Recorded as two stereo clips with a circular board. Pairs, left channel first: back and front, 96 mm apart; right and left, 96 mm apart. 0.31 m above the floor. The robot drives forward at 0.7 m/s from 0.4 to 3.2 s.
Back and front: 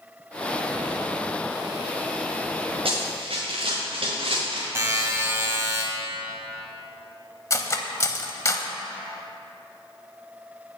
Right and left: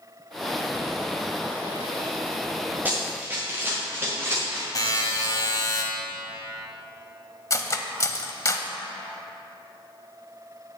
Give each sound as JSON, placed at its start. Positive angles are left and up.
{"t": 2.9, "sound": "running footsteps", "azimuth_deg": 20, "distance_m": 3.0}
{"t": 4.8, "sound": "a buzzer", "azimuth_deg": -60, "distance_m": 2.0}
{"t": 7.5, "sound": "cutlery clinking", "azimuth_deg": -135, "distance_m": 0.8}